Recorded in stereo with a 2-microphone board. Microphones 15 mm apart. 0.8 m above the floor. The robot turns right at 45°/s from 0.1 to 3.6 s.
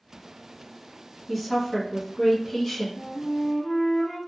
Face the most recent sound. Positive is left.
turn(degrees=20)  # may be behind; listen again after turning